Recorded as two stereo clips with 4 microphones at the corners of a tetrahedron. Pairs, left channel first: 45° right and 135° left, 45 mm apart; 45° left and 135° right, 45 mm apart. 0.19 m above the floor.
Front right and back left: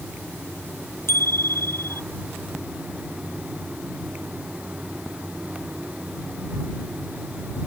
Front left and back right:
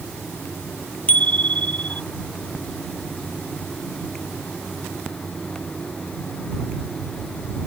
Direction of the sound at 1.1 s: 15° right.